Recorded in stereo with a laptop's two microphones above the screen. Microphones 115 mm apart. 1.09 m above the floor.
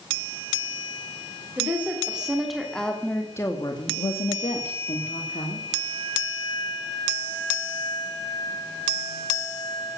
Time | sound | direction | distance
1.6 | a woman speaking | 15° right (ahead or behind) | 3.5 m